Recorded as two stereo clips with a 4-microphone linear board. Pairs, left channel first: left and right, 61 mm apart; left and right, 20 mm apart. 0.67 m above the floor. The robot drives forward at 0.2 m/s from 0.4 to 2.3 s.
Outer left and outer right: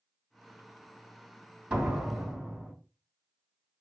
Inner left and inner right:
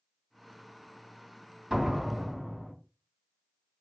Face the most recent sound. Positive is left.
turn(degrees=-25)  # may be behind; listen again after turning